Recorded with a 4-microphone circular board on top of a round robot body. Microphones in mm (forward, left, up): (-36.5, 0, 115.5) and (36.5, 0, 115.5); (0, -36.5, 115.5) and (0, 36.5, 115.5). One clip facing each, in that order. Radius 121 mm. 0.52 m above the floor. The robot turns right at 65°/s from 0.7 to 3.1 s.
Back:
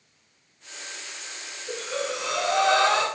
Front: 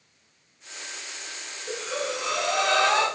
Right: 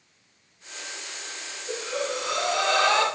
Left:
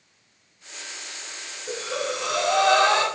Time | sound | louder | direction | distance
1.7 | breathing | even, left 1 dB | 60° left | 1.0 m